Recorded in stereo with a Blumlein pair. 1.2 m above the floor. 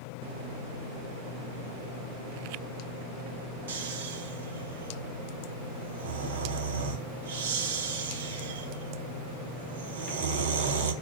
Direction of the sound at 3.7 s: 55° right.